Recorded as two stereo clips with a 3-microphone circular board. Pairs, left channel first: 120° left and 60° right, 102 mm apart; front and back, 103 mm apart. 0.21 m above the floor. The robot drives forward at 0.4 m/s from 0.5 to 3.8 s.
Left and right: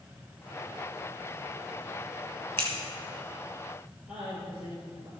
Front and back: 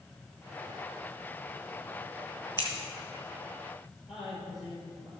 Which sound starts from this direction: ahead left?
Scissors, at 2.6 s.